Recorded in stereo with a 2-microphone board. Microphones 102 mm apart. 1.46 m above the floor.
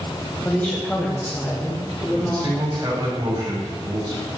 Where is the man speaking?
40° right (ahead or behind), 8.5 m.